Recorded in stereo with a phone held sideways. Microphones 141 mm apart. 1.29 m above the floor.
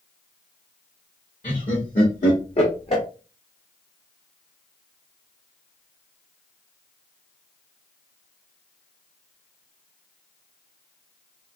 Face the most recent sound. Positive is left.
turn(degrees=40)  # may be behind; listen again after turning